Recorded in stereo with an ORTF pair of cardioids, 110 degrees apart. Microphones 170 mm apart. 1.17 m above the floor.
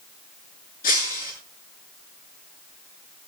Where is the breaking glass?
60° left, 6.5 m.